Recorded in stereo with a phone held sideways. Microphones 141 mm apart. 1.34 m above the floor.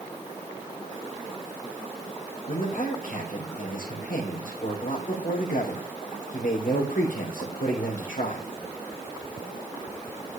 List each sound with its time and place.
2.5 s a man speaking: 75° left (ahead or behind), 3.5 m